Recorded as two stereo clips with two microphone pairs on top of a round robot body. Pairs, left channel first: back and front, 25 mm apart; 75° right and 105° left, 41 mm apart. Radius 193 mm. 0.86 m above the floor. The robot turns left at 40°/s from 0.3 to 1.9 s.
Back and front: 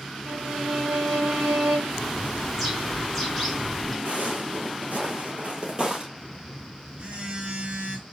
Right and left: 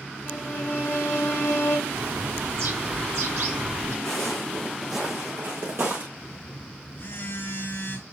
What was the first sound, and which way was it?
A violin, 10° right.